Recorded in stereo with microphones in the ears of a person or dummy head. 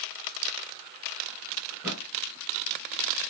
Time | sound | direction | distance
1.7 | a thud | 20° right (ahead or behind) | 2.5 m